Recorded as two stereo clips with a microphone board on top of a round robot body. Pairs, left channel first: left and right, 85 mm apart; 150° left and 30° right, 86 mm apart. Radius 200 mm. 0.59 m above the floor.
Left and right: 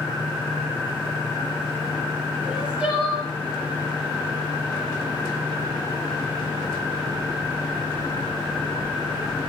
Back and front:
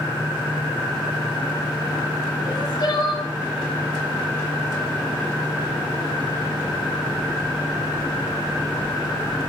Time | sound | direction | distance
2.5 | crying | 170° right | 8 m